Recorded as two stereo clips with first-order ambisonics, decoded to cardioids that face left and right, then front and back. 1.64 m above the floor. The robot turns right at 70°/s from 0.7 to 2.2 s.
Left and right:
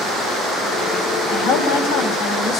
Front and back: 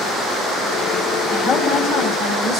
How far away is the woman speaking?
About 4 m.